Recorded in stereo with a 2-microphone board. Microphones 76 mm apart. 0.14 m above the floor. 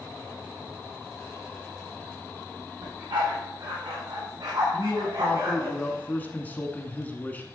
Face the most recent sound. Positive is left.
turn(degrees=20)  # may be behind; listen again after turning